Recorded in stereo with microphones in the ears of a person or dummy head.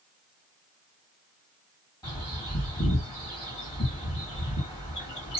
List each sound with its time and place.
2.0 s a bird: 20° left (ahead or behind), 2 m